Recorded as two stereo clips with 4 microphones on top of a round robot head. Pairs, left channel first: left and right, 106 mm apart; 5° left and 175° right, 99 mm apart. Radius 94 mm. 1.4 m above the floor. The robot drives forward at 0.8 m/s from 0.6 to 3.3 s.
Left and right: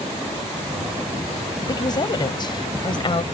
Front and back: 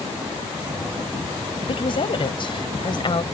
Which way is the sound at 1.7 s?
40° left.